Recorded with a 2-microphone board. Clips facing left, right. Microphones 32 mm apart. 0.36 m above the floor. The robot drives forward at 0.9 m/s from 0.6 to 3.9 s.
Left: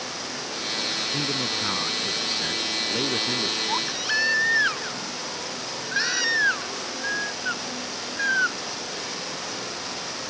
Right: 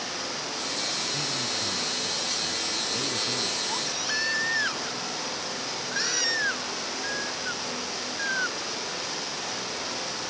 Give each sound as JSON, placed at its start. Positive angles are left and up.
{"t": 1.1, "sound": "a man speaking", "side_deg": 40}
{"t": 3.7, "sound": "a baby crying", "side_deg": 15}